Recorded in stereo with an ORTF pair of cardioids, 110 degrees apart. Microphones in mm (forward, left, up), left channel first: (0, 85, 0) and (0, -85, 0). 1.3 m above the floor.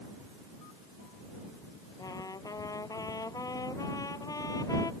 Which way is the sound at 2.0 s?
20° left.